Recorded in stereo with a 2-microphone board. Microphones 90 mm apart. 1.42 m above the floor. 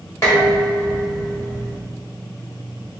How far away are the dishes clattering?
About 1.8 m.